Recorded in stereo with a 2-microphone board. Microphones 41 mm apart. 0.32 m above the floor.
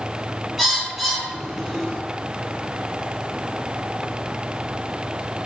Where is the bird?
5° left (ahead or behind), 3 m.